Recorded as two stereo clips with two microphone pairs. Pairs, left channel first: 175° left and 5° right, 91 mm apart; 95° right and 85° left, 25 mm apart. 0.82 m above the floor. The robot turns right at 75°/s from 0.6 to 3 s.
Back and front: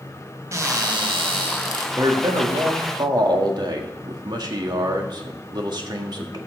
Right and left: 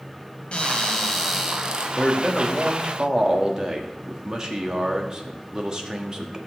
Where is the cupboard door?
60° right, 1.7 m; by 1.9 s 35° left, 1.7 m.